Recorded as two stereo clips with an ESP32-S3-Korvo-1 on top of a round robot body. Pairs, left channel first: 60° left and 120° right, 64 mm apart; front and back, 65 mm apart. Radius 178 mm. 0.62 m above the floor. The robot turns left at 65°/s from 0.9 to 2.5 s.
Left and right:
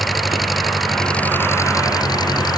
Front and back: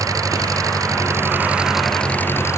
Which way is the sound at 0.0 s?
150° left.